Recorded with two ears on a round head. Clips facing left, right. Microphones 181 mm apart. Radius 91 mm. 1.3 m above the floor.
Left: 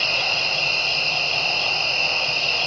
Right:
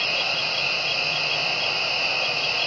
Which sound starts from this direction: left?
An insect, at 0.0 s.